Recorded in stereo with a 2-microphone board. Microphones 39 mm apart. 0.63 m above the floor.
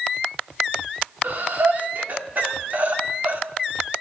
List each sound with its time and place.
1.2 s breathing: 55° right (ahead or behind), 1.4 m